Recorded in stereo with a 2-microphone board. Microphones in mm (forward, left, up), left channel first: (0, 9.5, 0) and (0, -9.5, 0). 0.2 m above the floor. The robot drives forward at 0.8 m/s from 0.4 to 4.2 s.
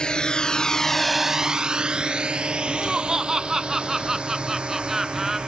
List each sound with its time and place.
0.0 s a drone: 50° left (ahead or behind); by 5.5 s 60° right (ahead or behind)
2.7 s laughter: 35° right (ahead or behind); by 5.4 s 25° right (ahead or behind)